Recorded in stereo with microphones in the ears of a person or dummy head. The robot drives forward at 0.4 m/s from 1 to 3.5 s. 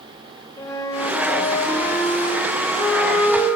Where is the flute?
15° left (ahead or behind), 0.6 m; by 3.5 s 5° left (ahead or behind), 1.6 m.